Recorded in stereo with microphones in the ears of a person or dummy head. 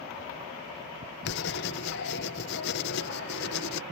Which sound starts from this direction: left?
Writing, at 1.2 s.